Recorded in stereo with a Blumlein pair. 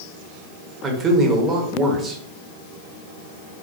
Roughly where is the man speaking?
Ahead.